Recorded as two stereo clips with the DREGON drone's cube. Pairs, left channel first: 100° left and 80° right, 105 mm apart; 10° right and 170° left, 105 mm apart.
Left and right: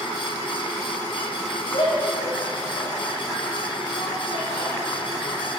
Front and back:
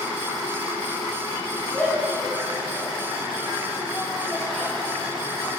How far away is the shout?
About 3.5 m.